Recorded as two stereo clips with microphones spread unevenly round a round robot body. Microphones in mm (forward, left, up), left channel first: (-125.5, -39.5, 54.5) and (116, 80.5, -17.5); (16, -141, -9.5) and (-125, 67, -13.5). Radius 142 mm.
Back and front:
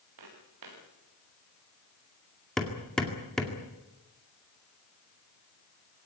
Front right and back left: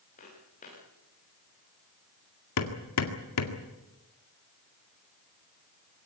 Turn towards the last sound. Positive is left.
turn(degrees=-60)